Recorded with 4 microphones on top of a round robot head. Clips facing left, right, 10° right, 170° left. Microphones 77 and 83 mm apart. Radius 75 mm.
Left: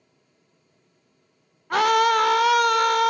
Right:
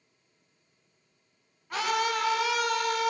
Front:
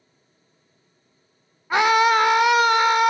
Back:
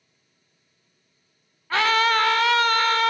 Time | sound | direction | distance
1.7 | a scream | 65° left | 0.6 m